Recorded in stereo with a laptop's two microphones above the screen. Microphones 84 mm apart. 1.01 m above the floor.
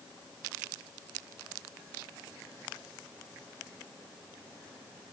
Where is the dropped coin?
I don't hear a dropped coin.